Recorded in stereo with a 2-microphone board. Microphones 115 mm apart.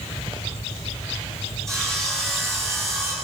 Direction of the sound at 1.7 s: 5° left (ahead or behind).